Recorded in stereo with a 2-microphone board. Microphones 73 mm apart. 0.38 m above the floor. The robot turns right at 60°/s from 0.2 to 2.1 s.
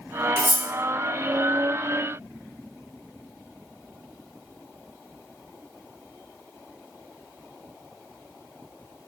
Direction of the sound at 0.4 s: 35° right (ahead or behind).